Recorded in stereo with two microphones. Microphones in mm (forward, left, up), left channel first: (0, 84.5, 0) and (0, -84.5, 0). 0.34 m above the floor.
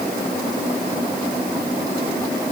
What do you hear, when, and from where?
Only background noise.